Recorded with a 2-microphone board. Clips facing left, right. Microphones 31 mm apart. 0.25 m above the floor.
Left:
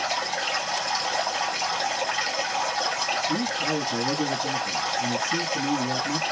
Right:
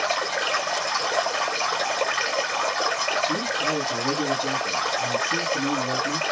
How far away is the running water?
About 2 m.